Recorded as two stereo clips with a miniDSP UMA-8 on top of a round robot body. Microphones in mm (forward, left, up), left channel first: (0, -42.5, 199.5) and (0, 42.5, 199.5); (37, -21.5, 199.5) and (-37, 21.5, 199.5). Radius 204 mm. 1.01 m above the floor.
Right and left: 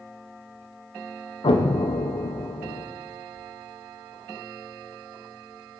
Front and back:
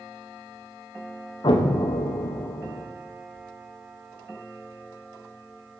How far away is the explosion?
About 0.9 m.